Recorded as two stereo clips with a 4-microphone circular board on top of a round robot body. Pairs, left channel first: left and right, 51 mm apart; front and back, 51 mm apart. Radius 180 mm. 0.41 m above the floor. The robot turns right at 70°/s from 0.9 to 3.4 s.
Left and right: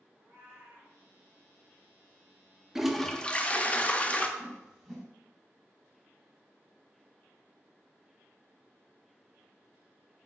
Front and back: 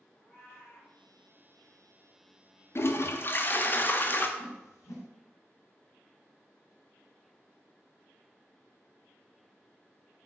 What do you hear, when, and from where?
0.1 s a cat meowing: 40° right, 1.9 m; by 0.9 s 35° right, 1.9 m
2.8 s a toilet flushing: 10° right, 0.6 m; by 4.3 s 35° left, 0.6 m
4.4 s a whoosh: 10° right, 1.5 m